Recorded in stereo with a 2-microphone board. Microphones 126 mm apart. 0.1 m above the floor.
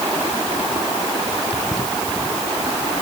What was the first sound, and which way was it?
Only background noise.